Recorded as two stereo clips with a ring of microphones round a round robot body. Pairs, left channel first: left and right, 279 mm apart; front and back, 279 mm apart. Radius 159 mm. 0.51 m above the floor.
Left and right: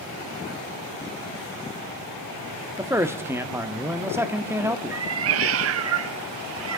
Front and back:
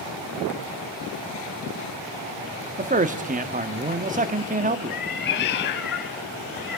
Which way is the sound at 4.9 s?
55° right.